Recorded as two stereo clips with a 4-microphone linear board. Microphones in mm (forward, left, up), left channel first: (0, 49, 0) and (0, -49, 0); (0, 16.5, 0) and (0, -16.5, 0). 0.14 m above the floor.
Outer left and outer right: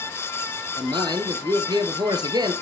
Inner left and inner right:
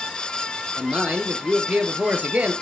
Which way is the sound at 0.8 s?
45° right (ahead or behind).